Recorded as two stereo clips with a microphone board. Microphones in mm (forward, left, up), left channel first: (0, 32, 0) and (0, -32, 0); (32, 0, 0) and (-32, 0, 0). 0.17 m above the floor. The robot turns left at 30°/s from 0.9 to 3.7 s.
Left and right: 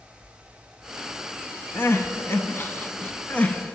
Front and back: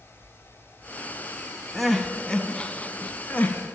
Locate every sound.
1.8 s crying: 90° left, 0.5 m; by 3.8 s 30° left, 0.5 m